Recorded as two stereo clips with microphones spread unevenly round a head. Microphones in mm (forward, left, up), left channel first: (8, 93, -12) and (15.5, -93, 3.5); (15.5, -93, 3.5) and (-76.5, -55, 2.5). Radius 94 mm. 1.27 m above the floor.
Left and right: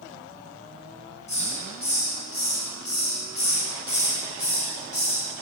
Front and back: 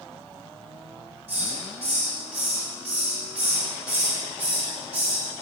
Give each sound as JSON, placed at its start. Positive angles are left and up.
{"t": 1.3, "sound": "a hiss", "azimuth_deg": 150, "distance_m": 5.0}